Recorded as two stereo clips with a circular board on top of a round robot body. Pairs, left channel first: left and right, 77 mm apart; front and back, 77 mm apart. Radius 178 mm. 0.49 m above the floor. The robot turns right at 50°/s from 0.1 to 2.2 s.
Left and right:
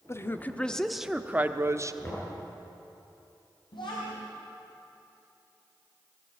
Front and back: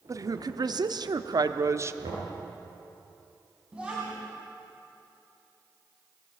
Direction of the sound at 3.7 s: 100° left.